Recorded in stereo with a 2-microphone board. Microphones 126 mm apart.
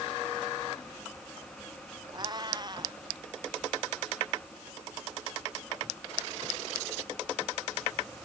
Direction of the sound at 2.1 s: 35° right (ahead or behind).